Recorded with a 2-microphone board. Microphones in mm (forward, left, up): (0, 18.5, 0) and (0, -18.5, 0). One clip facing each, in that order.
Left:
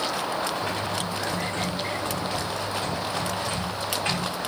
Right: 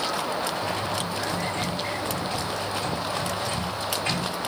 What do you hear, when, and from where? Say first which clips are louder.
0.6 s typing on a keyboard: even; 50° left (ahead or behind), 2.0 m